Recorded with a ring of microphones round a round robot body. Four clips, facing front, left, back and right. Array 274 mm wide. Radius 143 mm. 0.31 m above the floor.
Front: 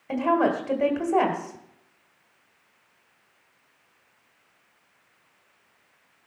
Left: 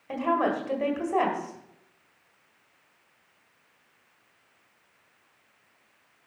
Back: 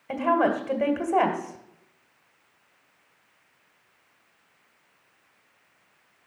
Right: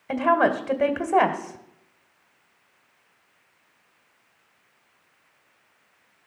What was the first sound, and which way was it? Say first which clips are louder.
A woman speaking: right 5 dB, even; 95° right.